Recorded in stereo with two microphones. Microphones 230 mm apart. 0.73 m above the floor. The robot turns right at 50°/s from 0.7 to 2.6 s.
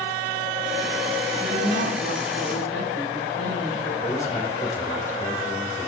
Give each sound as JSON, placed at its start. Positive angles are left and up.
{"t": 1.4, "sound": "a woman speaking", "azimuth_deg": -150, "distance_m": 6.0}
{"t": 4.0, "sound": "a man speaking", "side_deg": 10, "distance_m": 3.0}